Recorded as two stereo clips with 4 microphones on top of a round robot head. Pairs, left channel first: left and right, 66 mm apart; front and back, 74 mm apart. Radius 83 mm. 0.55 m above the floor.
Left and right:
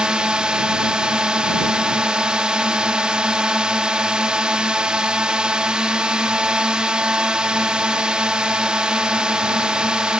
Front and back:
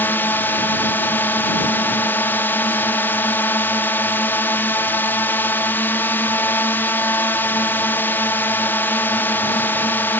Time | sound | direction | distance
0.0 | a drone | 25° right | ?